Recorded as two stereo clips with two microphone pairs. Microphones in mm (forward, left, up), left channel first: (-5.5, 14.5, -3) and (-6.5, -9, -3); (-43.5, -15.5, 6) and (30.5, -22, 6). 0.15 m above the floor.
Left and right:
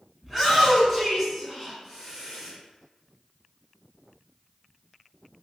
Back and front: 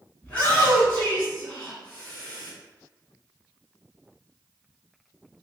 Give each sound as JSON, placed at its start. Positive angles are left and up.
{"t": 0.2, "sound": "a shout", "azimuth_deg": 170, "distance_m": 1.1}